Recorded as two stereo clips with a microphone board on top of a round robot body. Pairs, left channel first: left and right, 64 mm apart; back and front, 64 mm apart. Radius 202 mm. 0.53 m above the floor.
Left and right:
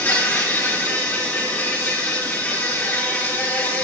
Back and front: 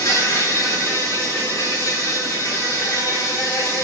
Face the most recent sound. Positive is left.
turn(degrees=145)